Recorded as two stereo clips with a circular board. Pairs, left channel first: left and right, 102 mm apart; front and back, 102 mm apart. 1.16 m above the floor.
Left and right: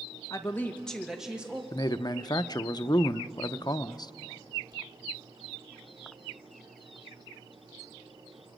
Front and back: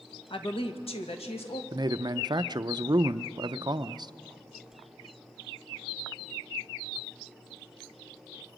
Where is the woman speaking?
35° left, 1.3 m; by 1.6 s 15° right, 2 m.